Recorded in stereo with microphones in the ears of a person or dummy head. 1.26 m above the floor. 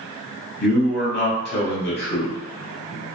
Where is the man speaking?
50° left (ahead or behind), 0.9 m.